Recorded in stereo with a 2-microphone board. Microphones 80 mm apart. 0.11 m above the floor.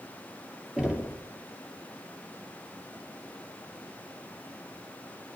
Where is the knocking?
10° right (ahead or behind), 2.5 m.